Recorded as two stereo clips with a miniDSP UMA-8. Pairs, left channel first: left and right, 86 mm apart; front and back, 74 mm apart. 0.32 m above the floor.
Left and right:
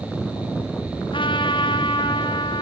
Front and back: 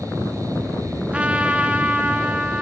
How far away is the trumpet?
About 2 m.